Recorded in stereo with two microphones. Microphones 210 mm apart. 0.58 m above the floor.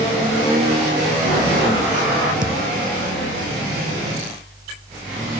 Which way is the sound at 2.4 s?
65° right (ahead or behind).